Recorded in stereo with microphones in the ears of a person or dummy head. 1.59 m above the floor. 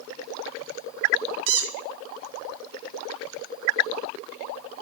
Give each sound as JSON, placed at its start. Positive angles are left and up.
{"t": 1.5, "sound": "a squeak", "side_deg": -60, "distance_m": 0.9}